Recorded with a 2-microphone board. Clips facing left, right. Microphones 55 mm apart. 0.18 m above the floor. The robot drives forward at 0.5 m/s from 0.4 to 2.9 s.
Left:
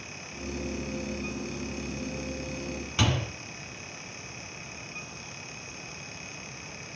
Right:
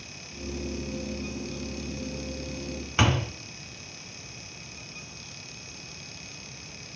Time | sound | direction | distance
3.0 | a door slam | 40° right (ahead or behind) | 1.5 m